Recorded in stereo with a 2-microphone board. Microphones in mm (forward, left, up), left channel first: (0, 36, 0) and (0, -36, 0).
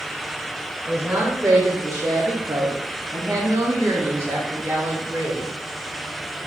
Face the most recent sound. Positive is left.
turn(degrees=-25)  # may be behind; listen again after turning